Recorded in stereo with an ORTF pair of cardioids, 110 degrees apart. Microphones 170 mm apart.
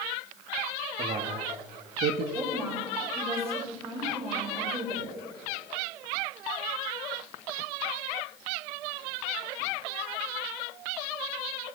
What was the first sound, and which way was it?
A man speaking, 45° right.